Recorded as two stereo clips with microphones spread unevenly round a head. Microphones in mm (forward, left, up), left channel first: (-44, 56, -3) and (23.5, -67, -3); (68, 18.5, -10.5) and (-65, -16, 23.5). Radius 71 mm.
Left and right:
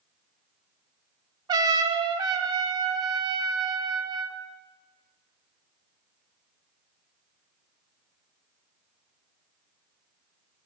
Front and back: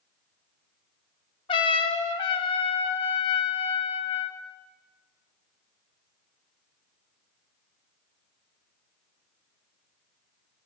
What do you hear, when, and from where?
1.5 s a trumpet: 35° right, 0.6 m